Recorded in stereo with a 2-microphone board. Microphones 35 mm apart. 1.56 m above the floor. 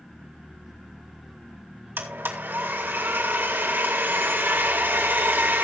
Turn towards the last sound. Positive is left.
turn(degrees=-90)